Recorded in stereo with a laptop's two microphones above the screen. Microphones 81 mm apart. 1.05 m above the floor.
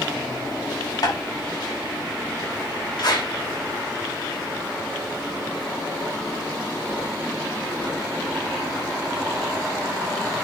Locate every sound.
1.0 s tapping: 55° left (ahead or behind), 4 m
3.0 s a clap: 60° left (ahead or behind), 4.5 m